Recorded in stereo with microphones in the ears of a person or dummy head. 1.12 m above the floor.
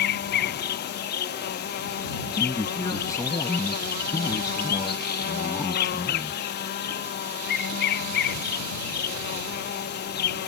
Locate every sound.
0.0 s an insect: 50° left (ahead or behind)
2.3 s a man speaking: 20° left (ahead or behind)